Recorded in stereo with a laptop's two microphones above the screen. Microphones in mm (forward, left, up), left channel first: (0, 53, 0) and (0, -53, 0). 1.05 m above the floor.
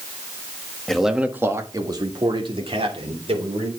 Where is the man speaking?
5° left (ahead or behind), 1.5 m; by 3.7 s 65° right (ahead or behind), 4 m.